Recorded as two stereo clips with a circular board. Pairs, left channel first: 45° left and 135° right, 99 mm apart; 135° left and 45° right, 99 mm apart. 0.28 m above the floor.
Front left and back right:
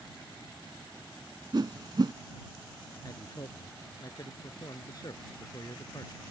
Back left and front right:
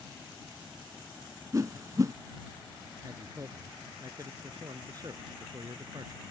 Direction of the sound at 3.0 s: Straight ahead.